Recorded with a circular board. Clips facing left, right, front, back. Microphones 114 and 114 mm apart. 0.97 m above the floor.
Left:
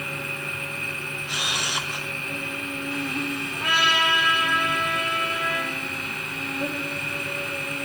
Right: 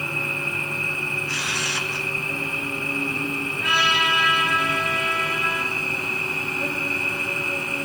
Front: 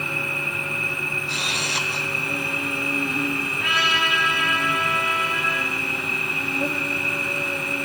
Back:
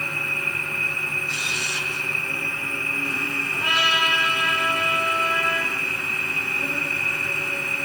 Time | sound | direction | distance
0.0 | an insect | 15° left | 1.7 m
1.3 | a camera shutter | 15° left | 0.6 m
3.5 | a trumpet | 130° left | 5.5 m